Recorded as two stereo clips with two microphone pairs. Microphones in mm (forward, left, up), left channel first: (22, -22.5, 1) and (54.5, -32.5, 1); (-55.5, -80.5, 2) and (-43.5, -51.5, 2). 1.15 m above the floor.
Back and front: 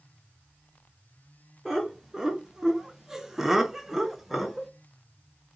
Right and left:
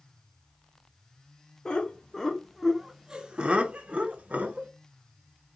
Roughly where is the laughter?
Right.